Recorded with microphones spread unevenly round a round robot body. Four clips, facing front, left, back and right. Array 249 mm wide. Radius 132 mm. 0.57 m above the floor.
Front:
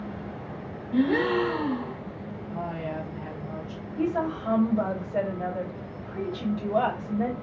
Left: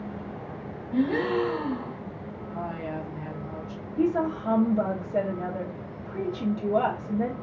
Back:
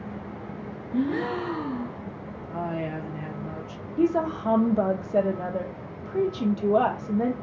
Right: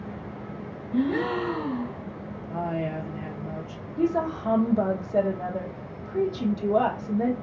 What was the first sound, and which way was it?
A gasp, 30° left.